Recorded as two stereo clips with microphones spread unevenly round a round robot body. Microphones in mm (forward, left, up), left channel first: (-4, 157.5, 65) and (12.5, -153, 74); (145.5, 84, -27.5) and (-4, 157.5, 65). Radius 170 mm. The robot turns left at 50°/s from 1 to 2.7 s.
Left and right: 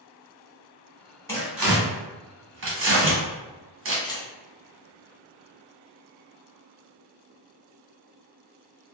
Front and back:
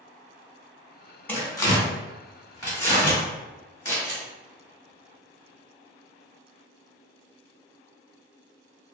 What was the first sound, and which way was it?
Tearing paper, 15° left.